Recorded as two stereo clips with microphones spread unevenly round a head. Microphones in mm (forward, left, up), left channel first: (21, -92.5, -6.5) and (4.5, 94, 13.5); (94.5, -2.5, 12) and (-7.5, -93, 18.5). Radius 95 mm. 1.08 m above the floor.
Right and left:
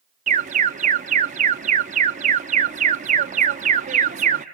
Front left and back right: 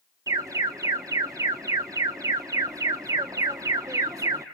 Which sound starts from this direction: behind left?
An alarm, at 0.3 s.